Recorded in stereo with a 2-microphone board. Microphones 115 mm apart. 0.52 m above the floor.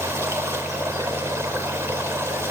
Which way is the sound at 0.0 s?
25° right (ahead or behind).